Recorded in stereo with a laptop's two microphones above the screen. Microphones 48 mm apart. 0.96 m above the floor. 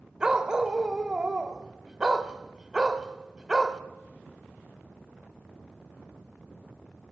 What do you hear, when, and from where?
0.2 s a dog barking: 15° right (ahead or behind), 1.6 m